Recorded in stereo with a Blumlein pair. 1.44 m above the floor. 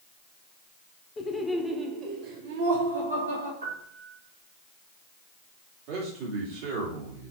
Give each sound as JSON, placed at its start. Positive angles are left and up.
{"t": 1.2, "sound": "laughter", "azimuth_deg": 20, "distance_m": 1.3}
{"t": 3.6, "sound": "a piano", "azimuth_deg": -70, "distance_m": 3.5}
{"t": 5.9, "sound": "a man speaking", "azimuth_deg": -45, "distance_m": 2.5}